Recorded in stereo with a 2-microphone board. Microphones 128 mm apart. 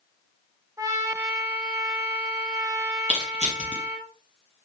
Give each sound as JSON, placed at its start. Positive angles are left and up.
{"t": 0.8, "sound": "a trumpet", "side_deg": -25, "distance_m": 0.7}
{"t": 3.1, "sound": "crushing", "side_deg": -55, "distance_m": 1.5}